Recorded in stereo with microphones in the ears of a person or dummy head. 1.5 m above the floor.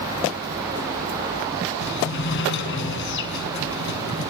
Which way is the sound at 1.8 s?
65° left (ahead or behind).